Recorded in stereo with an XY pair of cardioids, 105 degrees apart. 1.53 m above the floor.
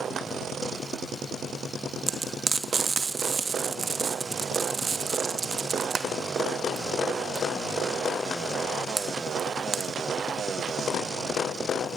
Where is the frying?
35° right, 2.5 m.